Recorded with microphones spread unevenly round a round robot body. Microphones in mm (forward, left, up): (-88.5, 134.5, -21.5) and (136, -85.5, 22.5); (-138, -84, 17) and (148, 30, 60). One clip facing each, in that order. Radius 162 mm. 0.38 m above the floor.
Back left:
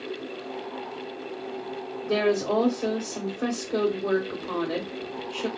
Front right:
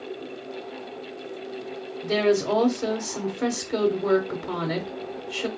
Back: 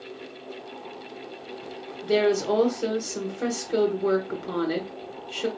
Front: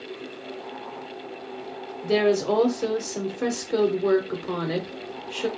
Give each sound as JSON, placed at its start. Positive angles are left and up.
{"t": 2.0, "sound": "a woman speaking", "azimuth_deg": -70, "distance_m": 1.0}